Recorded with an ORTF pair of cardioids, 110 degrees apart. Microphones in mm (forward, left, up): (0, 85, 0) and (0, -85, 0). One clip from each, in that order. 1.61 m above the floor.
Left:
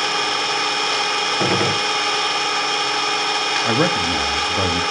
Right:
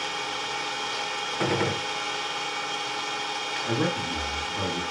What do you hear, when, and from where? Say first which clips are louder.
0.0 s an engine running: left 10 dB; 65° left, 0.9 m
1.4 s a gunshot: left 4 dB; 25° left, 0.5 m
3.6 s a man speaking: left 9 dB; 60° left, 1.4 m